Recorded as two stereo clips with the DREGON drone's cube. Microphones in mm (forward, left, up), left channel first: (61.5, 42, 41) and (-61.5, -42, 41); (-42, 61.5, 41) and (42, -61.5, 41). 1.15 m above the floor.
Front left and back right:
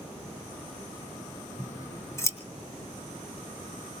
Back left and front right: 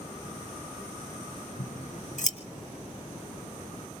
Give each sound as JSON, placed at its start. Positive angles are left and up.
{"t": 1.6, "sound": "scissors", "azimuth_deg": 105, "distance_m": 2.5}